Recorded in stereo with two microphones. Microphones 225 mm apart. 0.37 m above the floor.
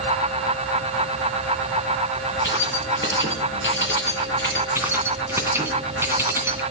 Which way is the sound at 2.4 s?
55° left (ahead or behind).